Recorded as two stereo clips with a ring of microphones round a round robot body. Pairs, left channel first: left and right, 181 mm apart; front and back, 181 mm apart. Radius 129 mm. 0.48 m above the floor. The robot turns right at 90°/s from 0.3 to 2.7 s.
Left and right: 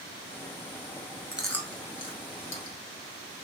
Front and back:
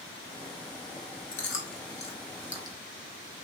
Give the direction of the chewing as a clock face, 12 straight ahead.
12 o'clock.